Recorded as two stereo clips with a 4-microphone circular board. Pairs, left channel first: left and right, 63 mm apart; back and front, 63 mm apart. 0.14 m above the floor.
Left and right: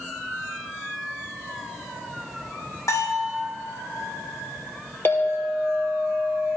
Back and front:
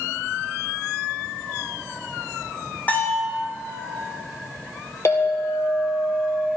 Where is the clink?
145° left, 2.5 m.